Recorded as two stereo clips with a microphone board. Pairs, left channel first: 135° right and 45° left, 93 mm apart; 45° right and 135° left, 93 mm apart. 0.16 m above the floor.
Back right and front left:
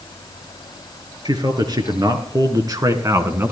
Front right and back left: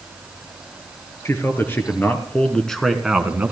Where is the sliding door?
I don't hear a sliding door.